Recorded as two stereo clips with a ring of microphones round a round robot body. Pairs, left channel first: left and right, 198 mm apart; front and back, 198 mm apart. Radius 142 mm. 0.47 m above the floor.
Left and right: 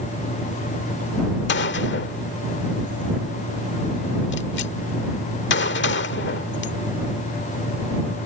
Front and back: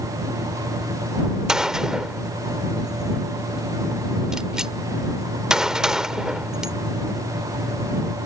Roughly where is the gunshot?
Left.